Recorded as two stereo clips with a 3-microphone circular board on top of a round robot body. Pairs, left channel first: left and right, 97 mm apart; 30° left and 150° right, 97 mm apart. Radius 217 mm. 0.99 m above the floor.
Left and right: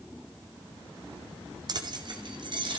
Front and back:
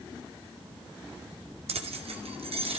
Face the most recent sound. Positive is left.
turn(degrees=-130)